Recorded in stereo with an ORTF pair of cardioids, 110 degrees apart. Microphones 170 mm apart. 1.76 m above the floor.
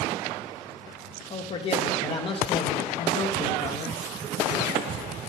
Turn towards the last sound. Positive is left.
turn(degrees=35)